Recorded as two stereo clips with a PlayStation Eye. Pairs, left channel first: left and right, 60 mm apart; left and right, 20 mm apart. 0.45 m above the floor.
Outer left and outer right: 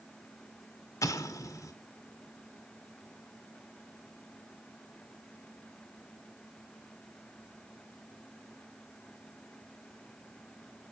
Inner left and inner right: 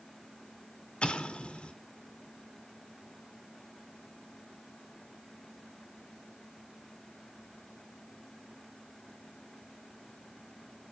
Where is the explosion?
75° left (ahead or behind), 1.9 m.